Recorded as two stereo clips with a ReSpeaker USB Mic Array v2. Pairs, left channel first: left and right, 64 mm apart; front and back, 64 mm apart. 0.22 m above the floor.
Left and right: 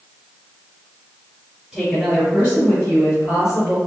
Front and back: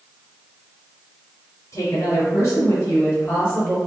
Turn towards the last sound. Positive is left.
turn(degrees=65)